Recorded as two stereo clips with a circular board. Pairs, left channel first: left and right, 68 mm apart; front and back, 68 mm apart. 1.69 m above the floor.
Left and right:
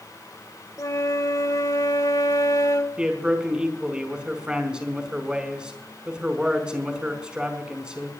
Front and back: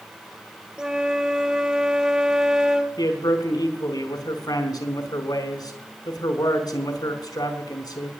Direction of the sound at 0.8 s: 100° left.